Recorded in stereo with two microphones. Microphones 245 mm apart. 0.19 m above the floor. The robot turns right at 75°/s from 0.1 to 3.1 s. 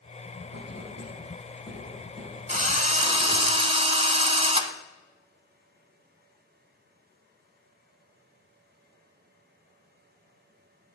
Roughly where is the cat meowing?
I don't hear a cat meowing.